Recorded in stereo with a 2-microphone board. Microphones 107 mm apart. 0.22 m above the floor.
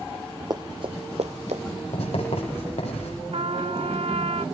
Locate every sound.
0.5 s running footsteps: 40° right (ahead or behind), 1.8 m; by 1.6 s 85° right, 1.9 m
1.9 s writing: 75° left (ahead or behind), 9 m
3.3 s a trumpet: 70° right (ahead or behind), 0.8 m